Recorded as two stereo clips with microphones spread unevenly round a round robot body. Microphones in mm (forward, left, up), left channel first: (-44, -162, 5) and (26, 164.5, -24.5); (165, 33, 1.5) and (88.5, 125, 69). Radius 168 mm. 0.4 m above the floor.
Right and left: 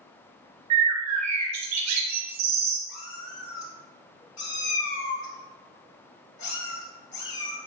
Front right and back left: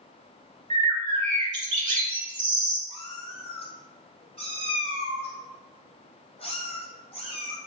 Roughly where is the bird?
Behind left.